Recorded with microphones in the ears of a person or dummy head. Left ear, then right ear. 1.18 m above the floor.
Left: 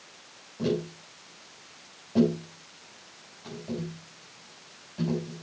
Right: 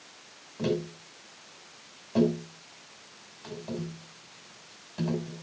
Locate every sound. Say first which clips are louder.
0.6 s tapping: left 1 dB; 40° right (ahead or behind), 5.5 m